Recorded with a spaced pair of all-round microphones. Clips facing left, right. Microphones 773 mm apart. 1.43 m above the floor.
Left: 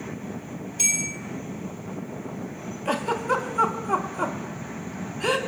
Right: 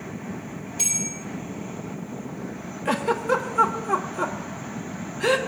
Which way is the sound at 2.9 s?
50° right (ahead or behind).